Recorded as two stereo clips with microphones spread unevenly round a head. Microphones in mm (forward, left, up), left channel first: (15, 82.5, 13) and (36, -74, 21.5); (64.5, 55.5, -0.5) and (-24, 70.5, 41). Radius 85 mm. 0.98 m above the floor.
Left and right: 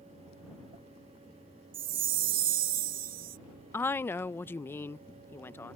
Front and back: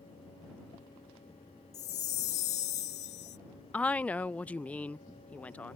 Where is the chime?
60° right.